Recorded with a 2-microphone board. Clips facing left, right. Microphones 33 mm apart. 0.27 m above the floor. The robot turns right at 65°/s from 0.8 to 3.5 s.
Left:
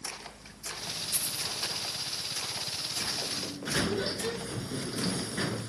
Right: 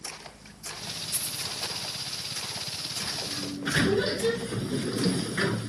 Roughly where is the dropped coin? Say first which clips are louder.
Even; left.